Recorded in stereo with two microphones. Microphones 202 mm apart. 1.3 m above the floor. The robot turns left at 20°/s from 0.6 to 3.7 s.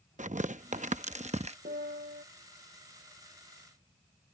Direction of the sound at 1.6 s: 50° right (ahead or behind).